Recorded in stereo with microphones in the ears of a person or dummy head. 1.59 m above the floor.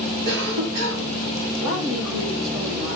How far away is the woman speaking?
About 3 m.